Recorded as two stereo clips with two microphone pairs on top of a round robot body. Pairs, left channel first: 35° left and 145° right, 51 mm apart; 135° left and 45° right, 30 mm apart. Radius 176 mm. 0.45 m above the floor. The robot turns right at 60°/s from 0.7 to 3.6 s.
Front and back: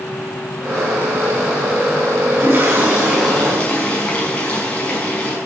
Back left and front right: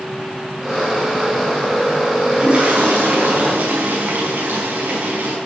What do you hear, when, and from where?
2.3 s a toilet flushing: 115° right, 6 m; by 5.4 s 35° right, 6 m